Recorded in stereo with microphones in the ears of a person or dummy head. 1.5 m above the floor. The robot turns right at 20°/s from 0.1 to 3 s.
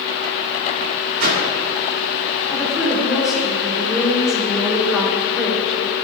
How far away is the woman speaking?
About 3.5 m.